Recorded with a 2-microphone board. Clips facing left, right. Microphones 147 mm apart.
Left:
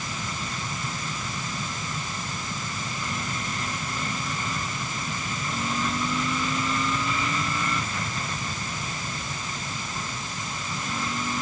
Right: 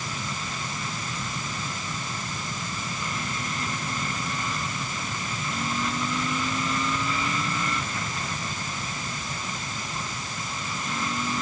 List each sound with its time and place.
Only background noise.